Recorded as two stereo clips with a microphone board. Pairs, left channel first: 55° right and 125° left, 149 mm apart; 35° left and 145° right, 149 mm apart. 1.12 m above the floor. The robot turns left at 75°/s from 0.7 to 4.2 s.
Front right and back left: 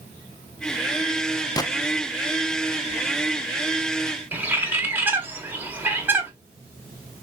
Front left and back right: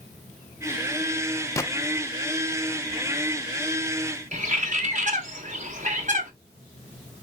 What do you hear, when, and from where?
1.6 s a gunshot: 15° right, 0.5 m; by 1.7 s 25° right, 0.5 m
4.3 s a bird: 160° right, 0.9 m